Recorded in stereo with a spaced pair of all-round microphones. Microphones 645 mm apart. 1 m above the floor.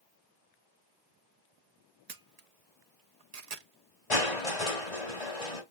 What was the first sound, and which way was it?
A camera shutter, 75° right (ahead or behind).